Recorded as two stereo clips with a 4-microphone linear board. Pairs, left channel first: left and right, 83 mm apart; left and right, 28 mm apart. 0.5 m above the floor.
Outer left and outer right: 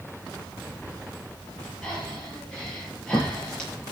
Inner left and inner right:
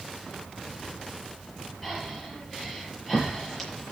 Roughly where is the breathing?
Centre.